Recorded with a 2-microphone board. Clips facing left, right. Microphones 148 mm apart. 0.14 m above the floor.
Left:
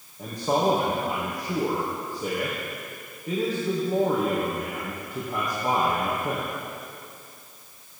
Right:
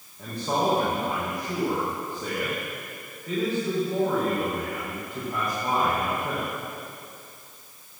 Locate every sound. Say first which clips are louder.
0.2 s a man speaking: left 2 dB; 20° left (ahead or behind), 4 m